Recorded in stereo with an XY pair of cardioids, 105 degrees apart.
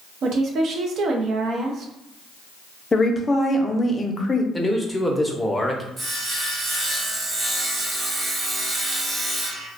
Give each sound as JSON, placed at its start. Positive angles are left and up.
{"t": 0.2, "sound": "a woman speaking", "azimuth_deg": -65, "distance_m": 0.6}
{"t": 2.9, "sound": "a woman speaking", "azimuth_deg": 25, "distance_m": 0.6}
{"t": 4.5, "sound": "a man speaking", "azimuth_deg": 10, "distance_m": 0.6}
{"t": 6.0, "sound": "sawing", "azimuth_deg": -40, "distance_m": 1.0}